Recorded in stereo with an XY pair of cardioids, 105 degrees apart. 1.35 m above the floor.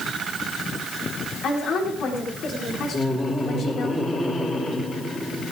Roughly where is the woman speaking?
Ahead left.